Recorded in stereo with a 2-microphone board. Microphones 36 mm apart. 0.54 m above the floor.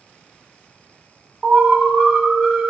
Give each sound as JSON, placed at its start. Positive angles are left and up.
{"t": 1.4, "sound": "an alarm", "side_deg": -25, "distance_m": 2.5}